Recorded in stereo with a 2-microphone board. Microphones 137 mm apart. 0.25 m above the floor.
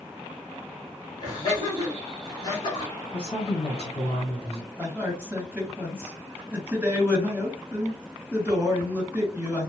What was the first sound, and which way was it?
Laughter, 30° left (ahead or behind).